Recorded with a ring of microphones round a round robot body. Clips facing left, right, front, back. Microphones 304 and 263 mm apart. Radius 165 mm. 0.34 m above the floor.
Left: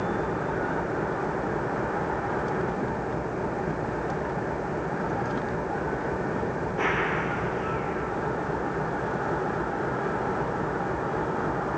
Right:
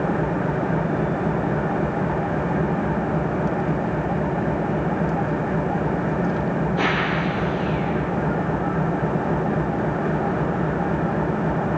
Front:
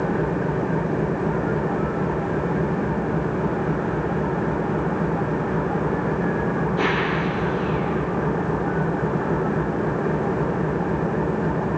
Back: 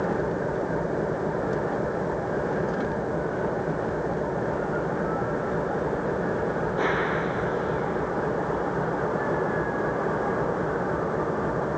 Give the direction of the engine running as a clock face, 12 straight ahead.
2 o'clock.